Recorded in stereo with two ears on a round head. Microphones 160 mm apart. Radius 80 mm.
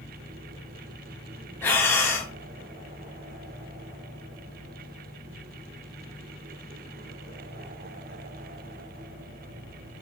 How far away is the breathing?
About 0.9 m.